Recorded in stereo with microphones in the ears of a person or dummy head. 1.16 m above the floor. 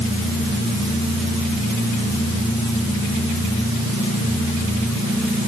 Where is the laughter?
No laughter in this recording.